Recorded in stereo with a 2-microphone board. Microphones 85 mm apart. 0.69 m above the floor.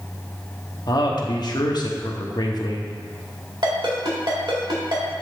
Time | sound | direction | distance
0.9 | a man speaking | 55° left (ahead or behind) | 0.9 m
3.6 | a ringtone | 60° right (ahead or behind) | 2.0 m